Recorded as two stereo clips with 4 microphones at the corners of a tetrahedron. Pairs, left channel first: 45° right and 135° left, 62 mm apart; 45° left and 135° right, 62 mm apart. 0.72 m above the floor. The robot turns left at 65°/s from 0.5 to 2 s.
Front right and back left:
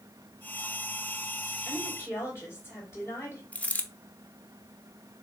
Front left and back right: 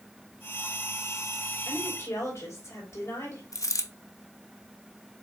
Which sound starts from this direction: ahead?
A dropped coin, at 3.5 s.